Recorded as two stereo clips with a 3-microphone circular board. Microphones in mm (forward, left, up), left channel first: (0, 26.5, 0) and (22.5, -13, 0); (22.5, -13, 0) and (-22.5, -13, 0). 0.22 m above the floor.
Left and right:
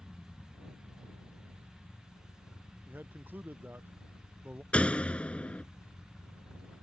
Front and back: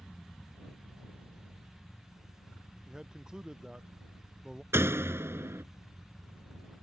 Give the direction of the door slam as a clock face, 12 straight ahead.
6 o'clock.